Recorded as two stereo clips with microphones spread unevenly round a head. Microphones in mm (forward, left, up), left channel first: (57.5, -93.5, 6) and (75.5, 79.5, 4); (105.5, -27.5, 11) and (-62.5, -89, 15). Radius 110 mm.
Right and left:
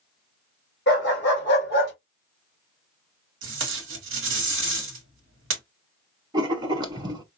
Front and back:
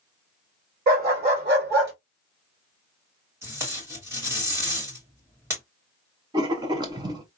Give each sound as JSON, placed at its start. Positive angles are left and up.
{"t": 0.9, "sound": "a dog barking", "azimuth_deg": -130, "distance_m": 2.5}
{"t": 3.4, "sound": "tape being pulled", "azimuth_deg": 120, "distance_m": 1.0}
{"t": 6.3, "sound": "writing", "azimuth_deg": 145, "distance_m": 0.7}